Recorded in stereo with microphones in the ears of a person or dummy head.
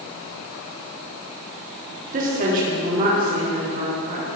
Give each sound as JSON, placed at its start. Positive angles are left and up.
{"t": 2.1, "sound": "a woman speaking", "side_deg": -45, "distance_m": 4.5}